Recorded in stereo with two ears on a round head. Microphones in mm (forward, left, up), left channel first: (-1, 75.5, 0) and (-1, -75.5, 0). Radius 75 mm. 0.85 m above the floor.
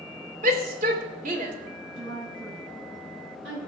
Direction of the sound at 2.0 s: 80° right.